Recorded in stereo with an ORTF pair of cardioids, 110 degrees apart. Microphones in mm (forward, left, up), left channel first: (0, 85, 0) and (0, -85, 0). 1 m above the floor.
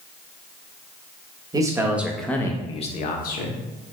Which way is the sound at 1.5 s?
20° right.